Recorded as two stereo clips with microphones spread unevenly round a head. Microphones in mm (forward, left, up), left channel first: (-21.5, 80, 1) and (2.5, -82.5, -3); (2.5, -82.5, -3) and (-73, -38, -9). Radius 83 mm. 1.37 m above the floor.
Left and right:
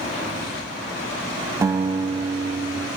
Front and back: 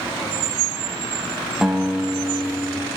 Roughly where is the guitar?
Behind right.